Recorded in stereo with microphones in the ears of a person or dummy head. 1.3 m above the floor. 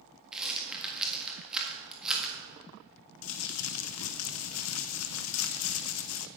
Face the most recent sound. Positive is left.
turn(degrees=75)  # may be behind; listen again after turning